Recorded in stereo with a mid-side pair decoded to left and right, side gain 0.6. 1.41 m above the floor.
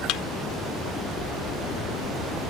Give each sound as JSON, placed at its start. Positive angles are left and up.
{"t": 0.1, "sound": "a thud", "azimuth_deg": 70}